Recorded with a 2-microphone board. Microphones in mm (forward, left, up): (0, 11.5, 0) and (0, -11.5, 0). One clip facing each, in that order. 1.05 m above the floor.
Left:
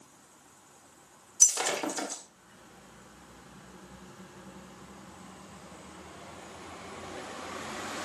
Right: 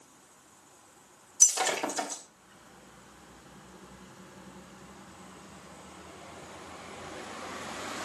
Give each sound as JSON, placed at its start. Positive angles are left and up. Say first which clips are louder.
{"t": 1.4, "sound": "breaking glass", "louder": "even", "side_deg": 5, "distance_m": 2.0}